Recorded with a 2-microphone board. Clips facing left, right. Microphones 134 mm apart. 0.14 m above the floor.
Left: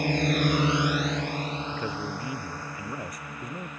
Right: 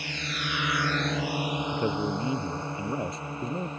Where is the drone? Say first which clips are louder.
Left 12 dB; 50° left (ahead or behind); by 3.8 s 25° right (ahead or behind).